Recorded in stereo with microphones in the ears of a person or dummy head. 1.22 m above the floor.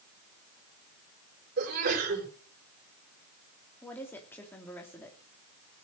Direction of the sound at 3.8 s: 10° left (ahead or behind).